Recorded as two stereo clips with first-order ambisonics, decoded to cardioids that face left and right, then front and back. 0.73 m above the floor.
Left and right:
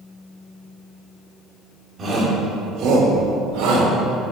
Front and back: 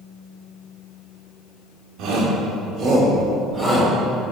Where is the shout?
155° right, 2.5 m; by 3.9 s 105° right, 3.5 m.